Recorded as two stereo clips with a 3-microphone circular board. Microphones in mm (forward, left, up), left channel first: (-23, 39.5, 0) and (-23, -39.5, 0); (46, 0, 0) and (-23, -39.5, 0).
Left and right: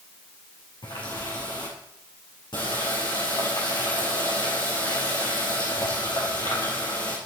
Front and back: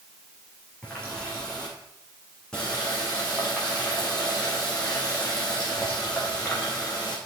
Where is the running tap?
110° left, 4 m.